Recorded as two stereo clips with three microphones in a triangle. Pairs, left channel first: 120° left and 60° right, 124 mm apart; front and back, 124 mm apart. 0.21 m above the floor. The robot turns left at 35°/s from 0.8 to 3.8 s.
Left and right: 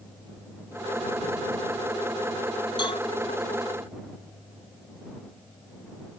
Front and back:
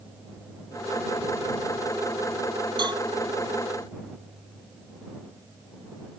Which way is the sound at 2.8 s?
150° left.